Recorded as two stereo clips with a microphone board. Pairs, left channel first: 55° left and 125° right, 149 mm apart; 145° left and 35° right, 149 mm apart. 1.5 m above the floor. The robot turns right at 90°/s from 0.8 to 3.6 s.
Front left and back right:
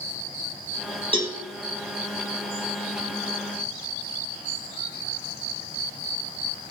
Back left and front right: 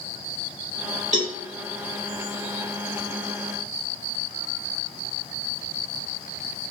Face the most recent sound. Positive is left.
turn(degrees=150)